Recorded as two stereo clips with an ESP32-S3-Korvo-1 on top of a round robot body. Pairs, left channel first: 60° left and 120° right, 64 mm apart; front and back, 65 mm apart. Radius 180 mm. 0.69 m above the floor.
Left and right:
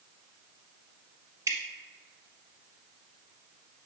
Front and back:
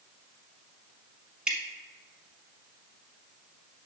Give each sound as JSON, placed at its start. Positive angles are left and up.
{"t": 1.5, "sound": "dripping", "azimuth_deg": -110, "distance_m": 1.1}